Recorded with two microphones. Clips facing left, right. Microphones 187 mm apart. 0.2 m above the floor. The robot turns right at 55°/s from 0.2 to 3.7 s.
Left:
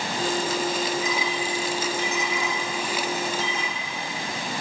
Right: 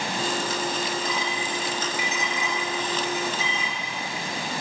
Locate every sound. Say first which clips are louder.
1.0 s a clink: left 2 dB; 55° right (ahead or behind), 2.5 m; by 3.8 s 70° left (ahead or behind), 2.5 m